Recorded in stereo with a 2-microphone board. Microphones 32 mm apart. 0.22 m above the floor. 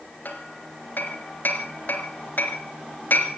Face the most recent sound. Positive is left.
turn(degrees=65)  # may be behind; listen again after turning